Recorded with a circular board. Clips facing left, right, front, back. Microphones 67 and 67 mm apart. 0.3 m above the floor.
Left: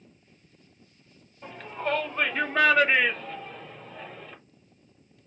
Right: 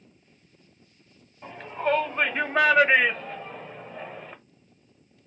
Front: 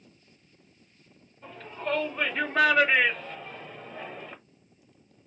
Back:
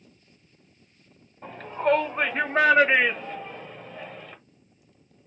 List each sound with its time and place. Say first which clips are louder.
1.4 s a shout: right 4 dB, back 9 dB; 170° right, 1.8 m; by 4.3 s 60° right, 1.3 m